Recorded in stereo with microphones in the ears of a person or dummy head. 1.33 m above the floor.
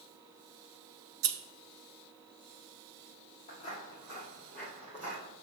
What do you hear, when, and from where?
1.2 s scissors: 65° right (ahead or behind), 0.8 m
3.5 s footsteps: 35° left (ahead or behind), 1.8 m; by 5.2 s 10° right (ahead or behind), 2.5 m